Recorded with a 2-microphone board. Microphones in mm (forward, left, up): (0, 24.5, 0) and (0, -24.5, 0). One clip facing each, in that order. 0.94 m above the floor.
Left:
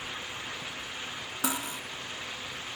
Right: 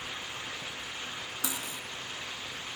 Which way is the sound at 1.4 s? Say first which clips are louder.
Left 7 dB; 65° left (ahead or behind).